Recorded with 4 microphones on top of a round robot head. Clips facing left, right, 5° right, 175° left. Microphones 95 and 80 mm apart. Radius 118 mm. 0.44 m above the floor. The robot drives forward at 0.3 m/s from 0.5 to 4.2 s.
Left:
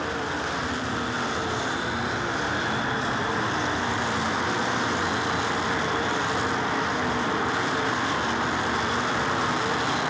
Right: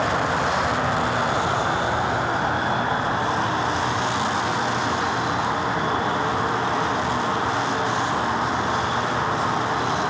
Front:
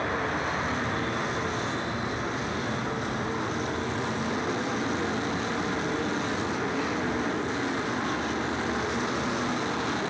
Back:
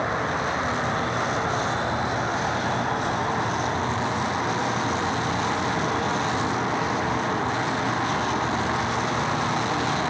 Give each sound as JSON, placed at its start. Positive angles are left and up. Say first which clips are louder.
{"t": 0.0, "sound": "an insect", "louder": "right 7 dB, back 3 dB", "azimuth_deg": -115, "distance_m": 0.9}